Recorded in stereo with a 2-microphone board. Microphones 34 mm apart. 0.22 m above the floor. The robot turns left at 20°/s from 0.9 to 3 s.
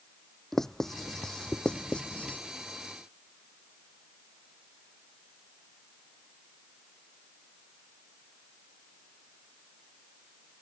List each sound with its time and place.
0.5 s writing: 10° left (ahead or behind); by 2.4 s 40° left (ahead or behind)